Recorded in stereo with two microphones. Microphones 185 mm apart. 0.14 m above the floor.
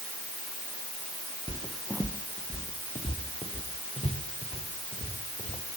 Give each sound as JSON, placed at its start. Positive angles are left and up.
{"t": 1.5, "sound": "footsteps", "side_deg": -10, "distance_m": 0.7}